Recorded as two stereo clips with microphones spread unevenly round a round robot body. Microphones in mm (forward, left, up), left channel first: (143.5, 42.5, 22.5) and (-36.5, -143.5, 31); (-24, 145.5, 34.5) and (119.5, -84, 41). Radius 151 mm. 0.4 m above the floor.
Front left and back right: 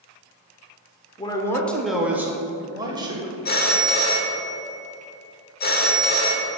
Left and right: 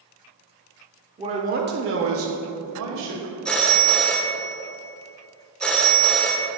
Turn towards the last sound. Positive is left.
turn(degrees=40)